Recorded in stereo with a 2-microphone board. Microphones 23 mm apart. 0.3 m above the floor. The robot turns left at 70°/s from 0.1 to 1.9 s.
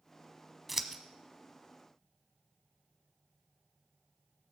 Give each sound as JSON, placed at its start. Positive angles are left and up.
{"t": 0.7, "sound": "scissors", "side_deg": -5, "distance_m": 0.9}